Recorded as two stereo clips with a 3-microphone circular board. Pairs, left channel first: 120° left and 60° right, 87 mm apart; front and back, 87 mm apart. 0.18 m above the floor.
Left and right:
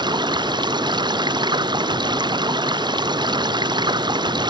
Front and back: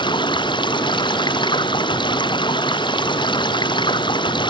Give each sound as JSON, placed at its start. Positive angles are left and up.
{"t": 0.0, "sound": "running water", "azimuth_deg": -30}